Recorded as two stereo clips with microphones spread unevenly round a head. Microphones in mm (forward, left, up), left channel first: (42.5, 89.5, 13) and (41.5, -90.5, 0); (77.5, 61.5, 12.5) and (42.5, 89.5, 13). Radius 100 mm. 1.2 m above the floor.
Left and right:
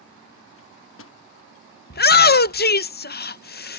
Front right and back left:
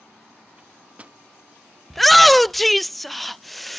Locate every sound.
0.6 s a microwave: 80° left
1.9 s a shout: 50° left